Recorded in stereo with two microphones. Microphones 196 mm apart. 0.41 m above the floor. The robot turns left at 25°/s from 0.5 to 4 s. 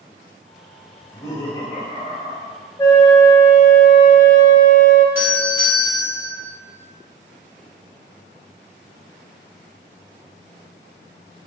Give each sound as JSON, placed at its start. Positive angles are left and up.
{"t": 1.0, "sound": "laughter", "azimuth_deg": 170, "distance_m": 1.7}
{"t": 2.8, "sound": "a flute", "azimuth_deg": 160, "distance_m": 0.8}
{"t": 5.2, "sound": "a doorbell", "side_deg": -10, "distance_m": 1.8}